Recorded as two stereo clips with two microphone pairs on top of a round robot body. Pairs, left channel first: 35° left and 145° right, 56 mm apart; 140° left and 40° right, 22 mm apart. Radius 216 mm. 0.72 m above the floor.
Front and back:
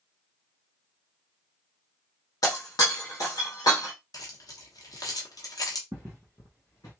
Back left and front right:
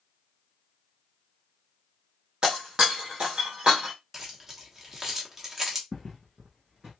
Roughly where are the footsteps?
Behind right.